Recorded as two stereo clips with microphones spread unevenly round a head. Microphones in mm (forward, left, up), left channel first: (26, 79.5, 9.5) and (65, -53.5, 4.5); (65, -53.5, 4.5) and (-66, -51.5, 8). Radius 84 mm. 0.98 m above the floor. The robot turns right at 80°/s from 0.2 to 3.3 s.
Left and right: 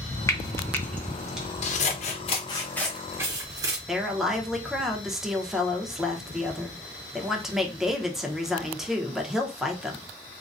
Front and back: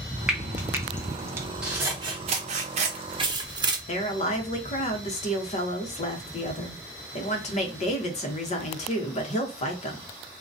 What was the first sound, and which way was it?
Frying, 110° left.